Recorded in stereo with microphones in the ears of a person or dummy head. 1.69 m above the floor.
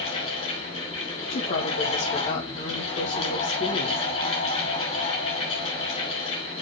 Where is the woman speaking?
45° left (ahead or behind), 2.5 m.